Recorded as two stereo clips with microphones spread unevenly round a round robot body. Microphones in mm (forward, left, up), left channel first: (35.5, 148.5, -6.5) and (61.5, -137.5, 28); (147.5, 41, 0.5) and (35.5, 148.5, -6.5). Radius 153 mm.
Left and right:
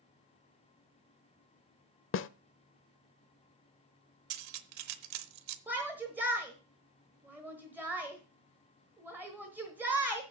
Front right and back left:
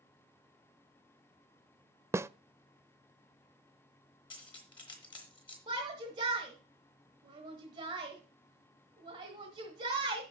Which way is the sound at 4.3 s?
110° right.